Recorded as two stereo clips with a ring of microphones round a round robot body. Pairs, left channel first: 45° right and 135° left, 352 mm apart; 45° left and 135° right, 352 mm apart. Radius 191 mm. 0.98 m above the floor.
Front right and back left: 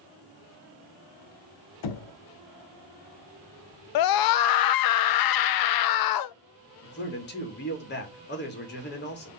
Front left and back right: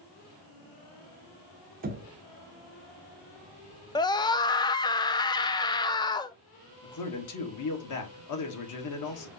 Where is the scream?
30° right, 0.5 m.